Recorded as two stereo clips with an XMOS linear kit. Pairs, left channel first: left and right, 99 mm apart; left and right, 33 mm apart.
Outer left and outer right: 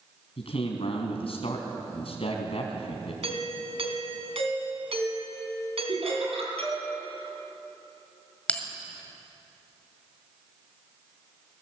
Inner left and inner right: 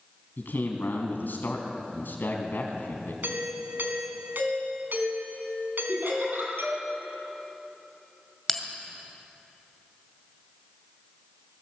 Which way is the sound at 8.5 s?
10° left (ahead or behind).